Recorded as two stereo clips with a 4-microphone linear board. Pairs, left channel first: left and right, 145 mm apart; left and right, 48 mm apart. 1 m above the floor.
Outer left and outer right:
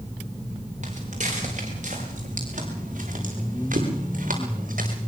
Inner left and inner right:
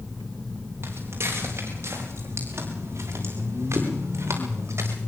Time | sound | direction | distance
0.8 | footsteps | 55° right (ahead or behind) | 9 m